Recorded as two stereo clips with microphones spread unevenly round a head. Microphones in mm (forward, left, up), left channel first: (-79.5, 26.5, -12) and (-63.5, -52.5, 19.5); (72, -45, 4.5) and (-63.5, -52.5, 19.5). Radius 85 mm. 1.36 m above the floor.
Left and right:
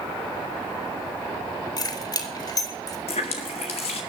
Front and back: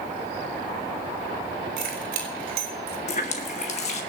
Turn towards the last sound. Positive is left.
turn(degrees=60)